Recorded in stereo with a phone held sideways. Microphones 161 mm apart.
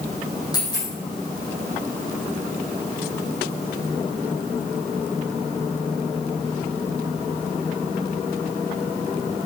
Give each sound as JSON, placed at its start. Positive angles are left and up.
{"t": 0.5, "sound": "a dropped coin", "side_deg": 25, "distance_m": 4.0}